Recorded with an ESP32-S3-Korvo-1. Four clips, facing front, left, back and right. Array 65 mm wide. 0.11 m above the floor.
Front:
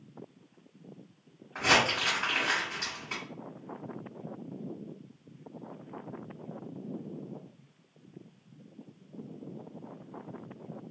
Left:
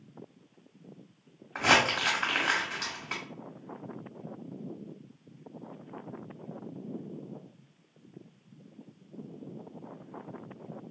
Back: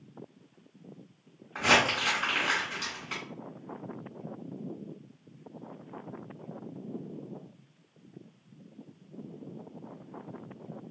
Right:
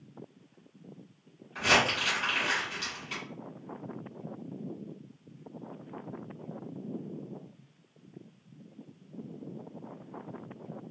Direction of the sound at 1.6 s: 95° left.